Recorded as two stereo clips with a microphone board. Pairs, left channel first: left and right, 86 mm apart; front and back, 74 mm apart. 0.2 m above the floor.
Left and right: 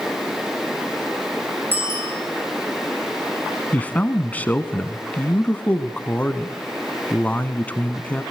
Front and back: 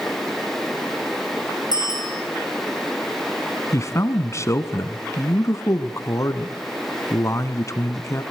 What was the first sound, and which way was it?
A bicycle bell, 155° right.